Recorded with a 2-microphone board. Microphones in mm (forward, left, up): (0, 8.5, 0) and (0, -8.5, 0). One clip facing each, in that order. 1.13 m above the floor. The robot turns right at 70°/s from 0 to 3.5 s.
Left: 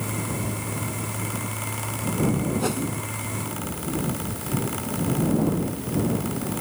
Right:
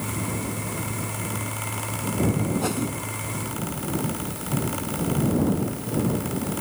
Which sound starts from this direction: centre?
A whoosh, at 2.6 s.